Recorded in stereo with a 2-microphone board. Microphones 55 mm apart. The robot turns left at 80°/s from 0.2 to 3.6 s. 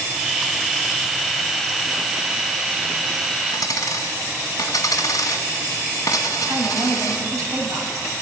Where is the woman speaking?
65° right (ahead or behind), 5.5 m.